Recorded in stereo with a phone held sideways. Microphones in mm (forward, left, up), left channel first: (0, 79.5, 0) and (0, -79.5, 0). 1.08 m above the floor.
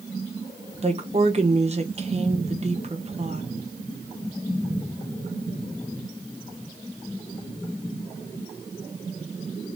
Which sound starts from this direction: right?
A woman speaking, at 0.8 s.